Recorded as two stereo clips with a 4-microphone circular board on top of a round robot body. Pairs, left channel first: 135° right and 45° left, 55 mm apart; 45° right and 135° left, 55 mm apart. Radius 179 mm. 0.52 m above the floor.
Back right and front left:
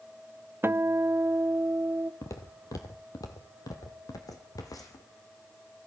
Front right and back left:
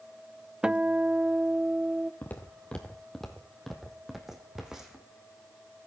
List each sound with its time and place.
0.6 s a guitar: 65° left, 0.8 m
2.2 s footsteps: 100° right, 0.8 m; by 5.0 s 145° right, 2 m